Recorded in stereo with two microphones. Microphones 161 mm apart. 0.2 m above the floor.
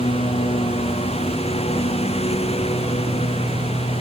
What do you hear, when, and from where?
0.0 s a lawn mower: 35° left (ahead or behind)